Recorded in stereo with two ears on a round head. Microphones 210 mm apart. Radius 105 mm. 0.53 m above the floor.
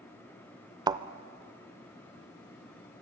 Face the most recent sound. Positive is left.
turn(degrees=-15)  # may be behind; listen again after turning